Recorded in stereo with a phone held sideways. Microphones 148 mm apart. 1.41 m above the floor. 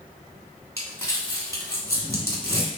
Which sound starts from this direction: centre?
Crumpling, at 0.8 s.